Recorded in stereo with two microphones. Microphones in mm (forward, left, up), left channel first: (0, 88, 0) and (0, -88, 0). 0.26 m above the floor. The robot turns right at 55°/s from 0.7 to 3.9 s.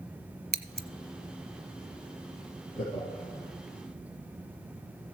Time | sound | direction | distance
0.5 | scissors | 60° right (ahead or behind) | 0.9 m
2.8 | laughter | 5° left (ahead or behind) | 5.5 m